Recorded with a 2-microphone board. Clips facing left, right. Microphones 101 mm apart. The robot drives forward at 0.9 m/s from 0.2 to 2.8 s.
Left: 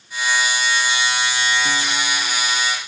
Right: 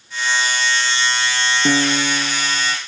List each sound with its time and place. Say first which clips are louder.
1.6 s a piano: right 5 dB; 65° right (ahead or behind); by 2.8 s 45° right (ahead or behind)